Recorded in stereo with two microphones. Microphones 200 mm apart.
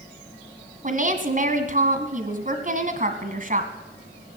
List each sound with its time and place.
0.8 s a woman speaking: 40° right (ahead or behind), 1.6 m